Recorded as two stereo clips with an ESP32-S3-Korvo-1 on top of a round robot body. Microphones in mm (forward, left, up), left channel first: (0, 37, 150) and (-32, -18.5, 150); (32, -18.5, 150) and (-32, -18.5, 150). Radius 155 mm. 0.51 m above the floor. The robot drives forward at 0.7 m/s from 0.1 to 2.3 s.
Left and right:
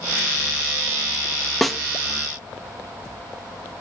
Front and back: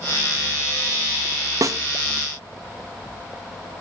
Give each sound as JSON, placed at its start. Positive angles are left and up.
{"t": 1.6, "sound": "a snare drum", "azimuth_deg": 145, "distance_m": 0.7}